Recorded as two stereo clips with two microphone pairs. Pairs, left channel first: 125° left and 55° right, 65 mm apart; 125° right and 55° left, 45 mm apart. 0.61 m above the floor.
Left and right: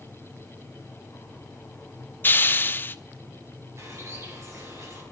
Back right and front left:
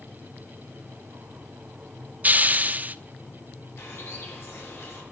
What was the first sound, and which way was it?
A hiss, 80° left.